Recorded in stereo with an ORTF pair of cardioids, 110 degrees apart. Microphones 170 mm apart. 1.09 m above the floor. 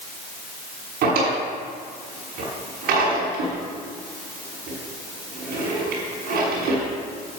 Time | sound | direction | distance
1.0 | a drawer | 70° right | 6 m